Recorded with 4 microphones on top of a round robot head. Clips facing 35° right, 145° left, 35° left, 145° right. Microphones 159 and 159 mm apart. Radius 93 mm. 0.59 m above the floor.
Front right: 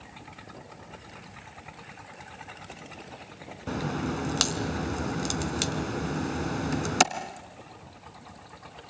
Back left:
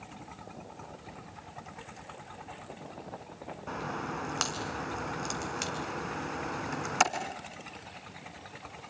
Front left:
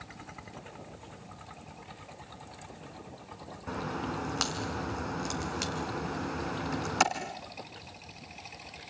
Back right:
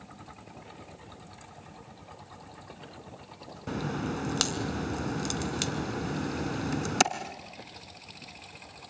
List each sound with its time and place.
3.7 s a crack: 90° right, 1.6 m